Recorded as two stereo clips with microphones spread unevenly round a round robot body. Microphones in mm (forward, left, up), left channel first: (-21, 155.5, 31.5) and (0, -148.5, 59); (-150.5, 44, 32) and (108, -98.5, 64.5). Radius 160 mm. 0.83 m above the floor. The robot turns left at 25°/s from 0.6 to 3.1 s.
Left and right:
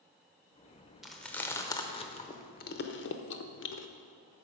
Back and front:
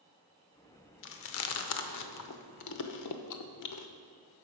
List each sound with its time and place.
1.0 s chewing: 170° right, 0.6 m; by 3.9 s 140° left, 0.6 m